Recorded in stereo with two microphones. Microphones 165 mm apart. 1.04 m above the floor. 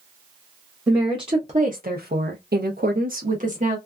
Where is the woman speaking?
20° right (ahead or behind), 0.8 m; by 3.8 s 50° right (ahead or behind), 1.2 m.